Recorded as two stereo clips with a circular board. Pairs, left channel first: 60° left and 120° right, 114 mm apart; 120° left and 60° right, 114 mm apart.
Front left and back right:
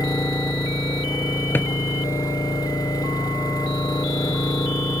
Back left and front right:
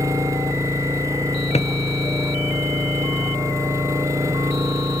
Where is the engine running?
Straight ahead.